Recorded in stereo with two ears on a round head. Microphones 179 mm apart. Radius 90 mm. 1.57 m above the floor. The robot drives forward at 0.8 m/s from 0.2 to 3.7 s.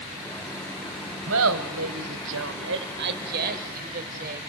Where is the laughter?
60° right (ahead or behind), 1.3 m; by 4.4 s 45° right (ahead or behind), 1.7 m.